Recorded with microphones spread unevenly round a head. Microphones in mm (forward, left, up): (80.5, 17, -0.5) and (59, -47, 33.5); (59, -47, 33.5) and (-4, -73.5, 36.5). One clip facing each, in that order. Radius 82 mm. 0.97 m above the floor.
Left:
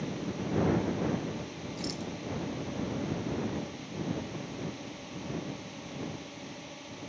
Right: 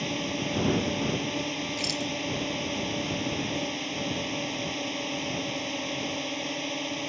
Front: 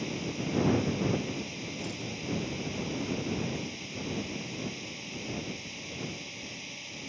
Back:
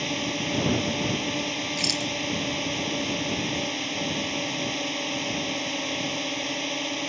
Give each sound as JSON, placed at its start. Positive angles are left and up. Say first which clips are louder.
{"t": 0.0, "sound": "a drone", "louder": "right 4 dB, back 5 dB", "azimuth_deg": -135}
{"t": 1.8, "sound": "a rattle", "louder": "right 5 dB, back 8 dB", "azimuth_deg": -150}